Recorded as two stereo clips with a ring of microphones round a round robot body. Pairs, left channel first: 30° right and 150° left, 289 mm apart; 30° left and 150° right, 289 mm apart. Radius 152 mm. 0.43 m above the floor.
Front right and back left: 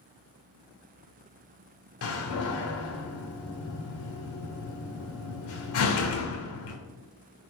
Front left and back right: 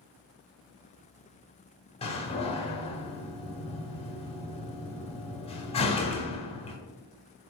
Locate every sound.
2.0 s a door slam: 35° right, 0.8 m